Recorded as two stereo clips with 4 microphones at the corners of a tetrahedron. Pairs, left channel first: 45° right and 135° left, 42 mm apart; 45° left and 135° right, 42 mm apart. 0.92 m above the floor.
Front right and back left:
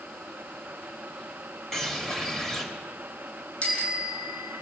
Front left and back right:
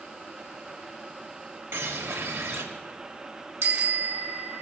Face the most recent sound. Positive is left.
turn(degrees=-105)